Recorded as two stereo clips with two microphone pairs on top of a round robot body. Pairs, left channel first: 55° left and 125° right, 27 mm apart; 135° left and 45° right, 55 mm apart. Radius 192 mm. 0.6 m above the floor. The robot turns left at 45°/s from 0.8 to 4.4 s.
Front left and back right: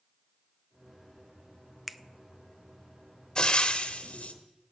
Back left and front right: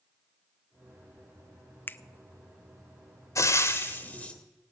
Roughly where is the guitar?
No guitar in this recording.